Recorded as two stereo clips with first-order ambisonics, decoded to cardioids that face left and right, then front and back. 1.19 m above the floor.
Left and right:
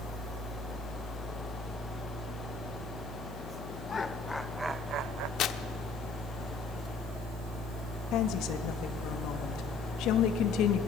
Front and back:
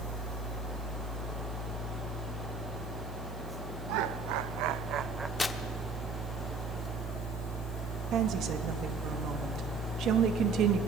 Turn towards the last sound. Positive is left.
turn(degrees=130)